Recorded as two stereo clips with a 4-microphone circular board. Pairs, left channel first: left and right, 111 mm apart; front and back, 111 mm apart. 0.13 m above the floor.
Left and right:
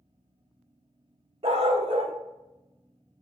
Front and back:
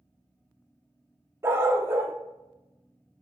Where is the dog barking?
115° right, 0.9 m.